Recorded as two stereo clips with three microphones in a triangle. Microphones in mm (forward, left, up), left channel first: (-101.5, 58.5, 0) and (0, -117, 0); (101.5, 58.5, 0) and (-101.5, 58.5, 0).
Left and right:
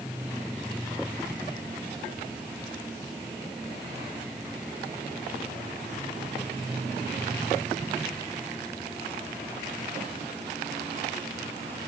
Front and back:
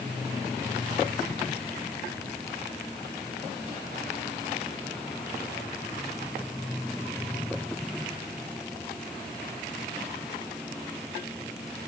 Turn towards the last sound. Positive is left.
No sound to turn to.